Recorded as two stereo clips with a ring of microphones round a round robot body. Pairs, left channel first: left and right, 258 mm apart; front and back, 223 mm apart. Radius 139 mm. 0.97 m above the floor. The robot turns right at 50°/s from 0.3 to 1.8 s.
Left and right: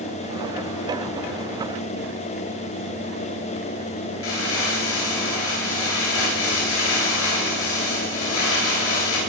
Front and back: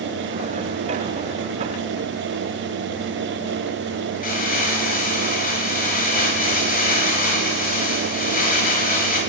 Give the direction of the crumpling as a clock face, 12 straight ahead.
10 o'clock.